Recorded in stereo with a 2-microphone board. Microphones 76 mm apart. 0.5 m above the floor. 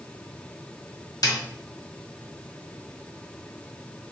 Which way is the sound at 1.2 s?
60° left (ahead or behind).